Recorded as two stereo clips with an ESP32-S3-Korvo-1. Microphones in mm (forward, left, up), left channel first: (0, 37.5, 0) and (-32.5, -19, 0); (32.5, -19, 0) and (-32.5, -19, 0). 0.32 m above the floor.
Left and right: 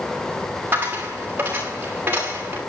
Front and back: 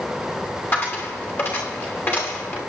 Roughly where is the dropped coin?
Ahead right.